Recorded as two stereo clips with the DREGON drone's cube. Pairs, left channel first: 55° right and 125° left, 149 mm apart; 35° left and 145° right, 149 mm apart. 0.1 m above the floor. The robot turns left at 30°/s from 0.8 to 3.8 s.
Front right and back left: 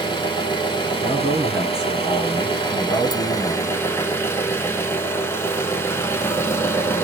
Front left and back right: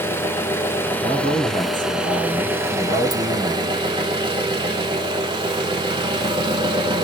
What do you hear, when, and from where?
0.0 s an engine running: 30° right, 0.7 m; by 7.0 s 120° right, 0.7 m
1.0 s a man speaking: 65° left, 2 m; by 3.6 s 15° right, 2 m